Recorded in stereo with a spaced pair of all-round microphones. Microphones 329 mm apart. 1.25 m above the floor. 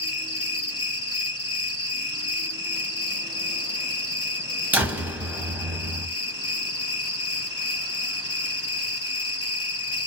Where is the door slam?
5° right (ahead or behind), 0.8 m.